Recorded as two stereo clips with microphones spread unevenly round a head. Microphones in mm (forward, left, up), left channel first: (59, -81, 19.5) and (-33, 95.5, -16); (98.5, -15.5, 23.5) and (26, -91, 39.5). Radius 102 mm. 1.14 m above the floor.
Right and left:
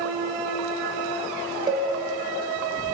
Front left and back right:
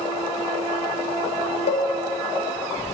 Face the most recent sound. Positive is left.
turn(degrees=50)